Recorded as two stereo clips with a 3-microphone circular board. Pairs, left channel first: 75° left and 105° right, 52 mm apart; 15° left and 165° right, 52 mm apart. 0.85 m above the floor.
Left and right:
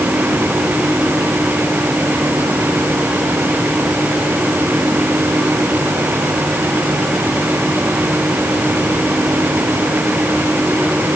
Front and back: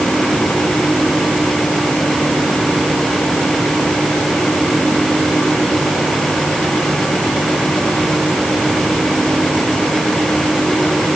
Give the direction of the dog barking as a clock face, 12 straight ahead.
I don't hear a dog barking.